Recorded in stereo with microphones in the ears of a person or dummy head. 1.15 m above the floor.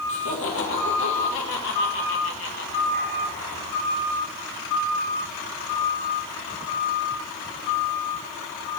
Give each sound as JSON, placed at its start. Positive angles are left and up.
{"t": 0.1, "sound": "laughter", "side_deg": 65, "distance_m": 1.7}